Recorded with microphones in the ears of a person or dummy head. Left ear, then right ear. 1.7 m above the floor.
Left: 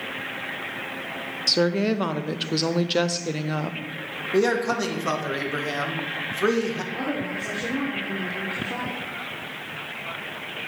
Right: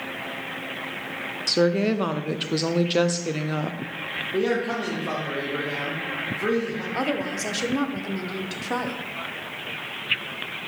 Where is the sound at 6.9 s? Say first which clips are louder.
Right 2 dB; 60° right (ahead or behind), 1.1 m.